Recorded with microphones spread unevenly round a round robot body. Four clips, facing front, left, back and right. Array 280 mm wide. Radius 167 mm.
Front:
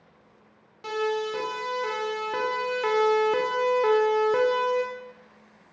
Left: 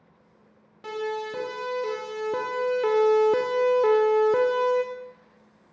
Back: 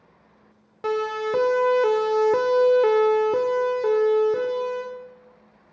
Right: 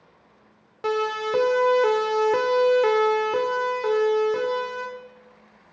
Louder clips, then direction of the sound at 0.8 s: Right 6 dB, back 3 dB; 140° right.